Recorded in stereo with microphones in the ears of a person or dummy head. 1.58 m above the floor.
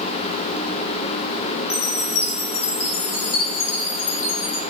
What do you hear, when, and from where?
1.7 s a chime: 40° left (ahead or behind), 4 m